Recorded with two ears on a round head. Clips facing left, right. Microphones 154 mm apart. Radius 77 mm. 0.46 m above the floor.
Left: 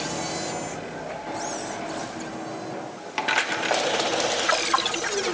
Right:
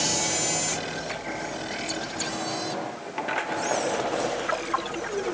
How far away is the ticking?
I don't hear ticking.